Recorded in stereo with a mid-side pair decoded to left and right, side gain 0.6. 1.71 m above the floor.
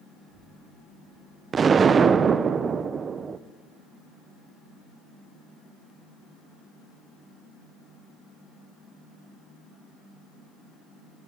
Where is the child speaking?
5° right, 10 m; by 1.4 s 10° right, 10 m.